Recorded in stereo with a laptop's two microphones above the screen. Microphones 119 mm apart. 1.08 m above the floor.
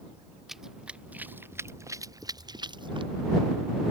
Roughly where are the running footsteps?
Centre.